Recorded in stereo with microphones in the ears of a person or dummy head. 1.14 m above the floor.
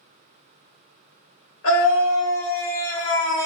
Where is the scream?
75° left (ahead or behind), 1.3 m.